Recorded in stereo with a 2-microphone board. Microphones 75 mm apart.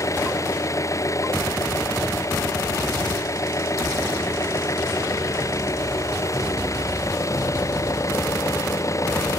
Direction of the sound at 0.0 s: 45° left (ahead or behind).